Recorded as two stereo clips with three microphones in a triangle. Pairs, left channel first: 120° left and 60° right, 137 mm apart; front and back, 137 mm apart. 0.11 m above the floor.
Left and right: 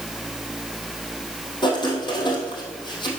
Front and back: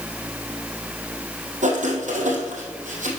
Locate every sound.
1.6 s writing: 170° left, 2.5 m